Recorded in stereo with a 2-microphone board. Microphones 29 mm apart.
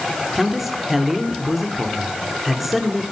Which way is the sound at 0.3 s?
5° right (ahead or behind).